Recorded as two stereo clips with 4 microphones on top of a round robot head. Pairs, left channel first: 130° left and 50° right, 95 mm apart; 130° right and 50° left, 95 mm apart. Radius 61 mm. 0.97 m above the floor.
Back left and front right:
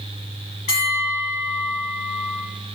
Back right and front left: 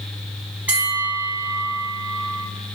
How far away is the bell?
About 4 m.